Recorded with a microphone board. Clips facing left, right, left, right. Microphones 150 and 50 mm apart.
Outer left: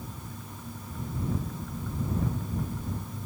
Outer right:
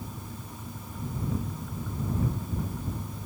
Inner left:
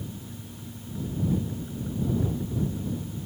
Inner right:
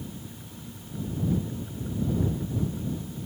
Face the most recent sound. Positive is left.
No sound to turn to.